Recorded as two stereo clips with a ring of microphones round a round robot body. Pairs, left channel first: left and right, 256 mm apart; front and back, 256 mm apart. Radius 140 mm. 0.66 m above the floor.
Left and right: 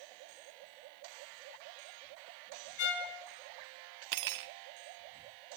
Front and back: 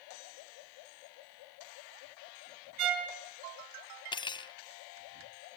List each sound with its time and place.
2.8 s a violin: 140° left, 1.7 m
4.1 s cutlery clinking: 75° right, 0.6 m